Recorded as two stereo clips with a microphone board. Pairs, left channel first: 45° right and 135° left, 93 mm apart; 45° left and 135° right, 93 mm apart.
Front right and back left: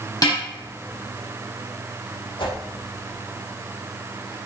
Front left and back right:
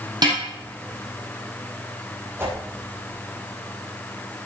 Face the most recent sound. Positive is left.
turn(degrees=-70)